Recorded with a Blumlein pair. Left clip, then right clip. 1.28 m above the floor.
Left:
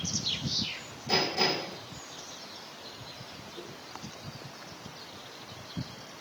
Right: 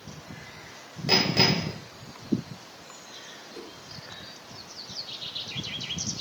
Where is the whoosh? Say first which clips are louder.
Right 1 dB; 35° right, 3 m.